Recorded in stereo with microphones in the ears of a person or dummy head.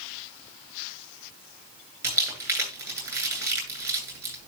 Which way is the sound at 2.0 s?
15° right (ahead or behind).